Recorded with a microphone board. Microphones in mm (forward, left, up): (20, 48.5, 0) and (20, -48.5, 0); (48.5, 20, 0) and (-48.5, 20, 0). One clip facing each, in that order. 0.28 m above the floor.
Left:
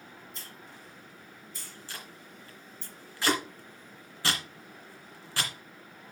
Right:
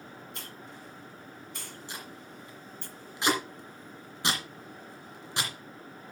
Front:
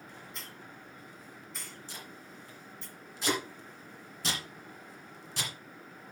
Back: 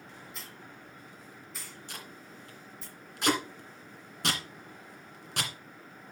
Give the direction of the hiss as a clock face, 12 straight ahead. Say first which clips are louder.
Right 3 dB, even; 3 o'clock.